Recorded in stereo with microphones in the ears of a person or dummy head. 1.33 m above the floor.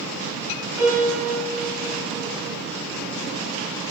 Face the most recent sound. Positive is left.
turn(degrees=-10)  # may be behind; listen again after turning